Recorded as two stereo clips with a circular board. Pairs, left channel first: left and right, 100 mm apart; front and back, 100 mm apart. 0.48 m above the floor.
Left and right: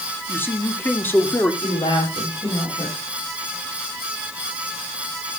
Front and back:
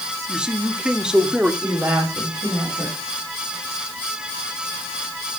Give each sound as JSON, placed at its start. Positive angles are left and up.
{"t": 0.3, "sound": "a man speaking", "azimuth_deg": 110, "distance_m": 1.0}
{"t": 1.6, "sound": "a woman speaking", "azimuth_deg": 110, "distance_m": 3.5}